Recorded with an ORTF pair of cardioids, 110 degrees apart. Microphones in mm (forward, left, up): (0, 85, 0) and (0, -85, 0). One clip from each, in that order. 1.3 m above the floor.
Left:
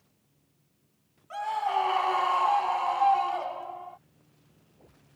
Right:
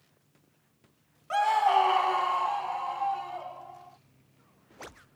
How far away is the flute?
I don't hear a flute.